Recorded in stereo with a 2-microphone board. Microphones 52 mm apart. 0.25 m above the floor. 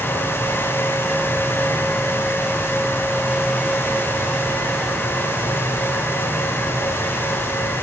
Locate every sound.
Only background noise.